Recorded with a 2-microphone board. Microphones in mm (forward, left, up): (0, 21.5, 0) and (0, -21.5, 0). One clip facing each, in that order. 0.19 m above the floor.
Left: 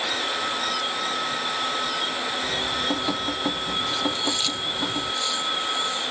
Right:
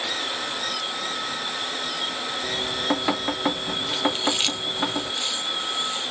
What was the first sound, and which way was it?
Dripping, 40° right (ahead or behind).